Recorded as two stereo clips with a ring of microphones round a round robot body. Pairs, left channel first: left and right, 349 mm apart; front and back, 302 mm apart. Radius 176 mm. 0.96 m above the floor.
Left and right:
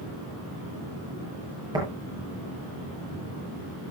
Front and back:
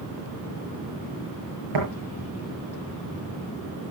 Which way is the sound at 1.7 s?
170° right.